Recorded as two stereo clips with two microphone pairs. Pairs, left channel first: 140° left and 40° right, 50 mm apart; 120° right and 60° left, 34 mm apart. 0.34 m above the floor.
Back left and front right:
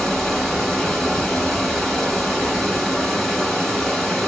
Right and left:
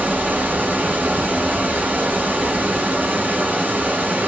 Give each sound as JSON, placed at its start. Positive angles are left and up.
{"t": 0.0, "sound": "running water", "azimuth_deg": 45, "distance_m": 1.1}